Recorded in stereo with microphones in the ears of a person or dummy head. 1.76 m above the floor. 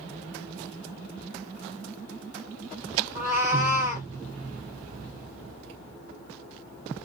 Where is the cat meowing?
15° right (ahead or behind), 1.8 m.